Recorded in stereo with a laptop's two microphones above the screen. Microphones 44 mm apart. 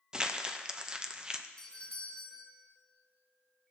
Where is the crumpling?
20° right (ahead or behind), 0.6 m.